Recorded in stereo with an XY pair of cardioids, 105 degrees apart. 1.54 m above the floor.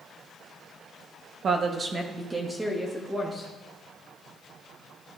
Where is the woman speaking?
50° right, 0.7 m; by 3.5 s 5° left, 1.5 m.